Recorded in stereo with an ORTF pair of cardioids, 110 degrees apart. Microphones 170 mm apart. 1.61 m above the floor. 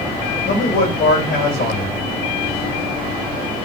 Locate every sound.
0.5 s a man speaking: 65° left, 4 m